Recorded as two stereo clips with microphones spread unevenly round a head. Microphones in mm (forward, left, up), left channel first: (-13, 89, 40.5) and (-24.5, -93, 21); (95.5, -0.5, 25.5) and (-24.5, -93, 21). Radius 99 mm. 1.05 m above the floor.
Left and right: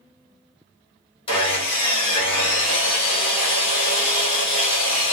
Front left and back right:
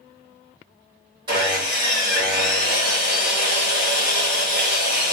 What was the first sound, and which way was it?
Sawing, 150° left.